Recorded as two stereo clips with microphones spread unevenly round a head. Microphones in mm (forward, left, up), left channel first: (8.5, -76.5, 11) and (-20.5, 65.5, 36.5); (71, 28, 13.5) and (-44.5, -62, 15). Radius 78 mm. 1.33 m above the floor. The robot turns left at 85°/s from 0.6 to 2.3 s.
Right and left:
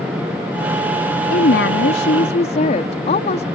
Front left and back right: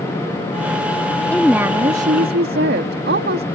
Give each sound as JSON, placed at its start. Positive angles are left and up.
{"t": 1.3, "sound": "a woman speaking", "azimuth_deg": -40}